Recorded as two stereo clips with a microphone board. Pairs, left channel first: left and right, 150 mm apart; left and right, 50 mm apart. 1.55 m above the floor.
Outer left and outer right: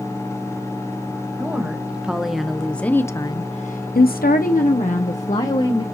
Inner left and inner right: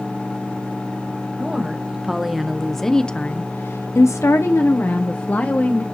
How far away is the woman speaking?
About 2.5 m.